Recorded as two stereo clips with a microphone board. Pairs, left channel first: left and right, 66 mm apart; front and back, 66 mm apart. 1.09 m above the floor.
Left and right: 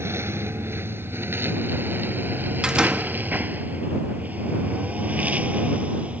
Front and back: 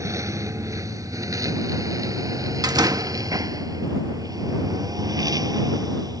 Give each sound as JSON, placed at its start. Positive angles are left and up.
{"t": 0.0, "sound": "a lawn mower", "azimuth_deg": -140}
{"t": 2.6, "sound": "a door slam", "azimuth_deg": -165}